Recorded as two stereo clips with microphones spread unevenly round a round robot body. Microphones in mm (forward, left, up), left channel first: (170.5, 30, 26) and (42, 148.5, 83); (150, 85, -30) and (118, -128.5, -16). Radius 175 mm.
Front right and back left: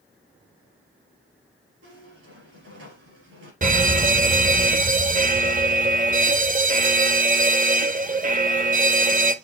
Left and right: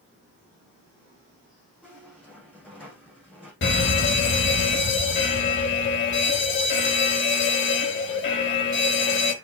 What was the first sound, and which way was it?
A squeak, 170° left.